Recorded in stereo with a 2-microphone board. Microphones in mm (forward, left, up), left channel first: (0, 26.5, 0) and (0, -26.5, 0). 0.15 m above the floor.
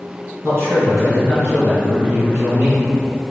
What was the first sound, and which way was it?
A man speaking, 45° right (ahead or behind).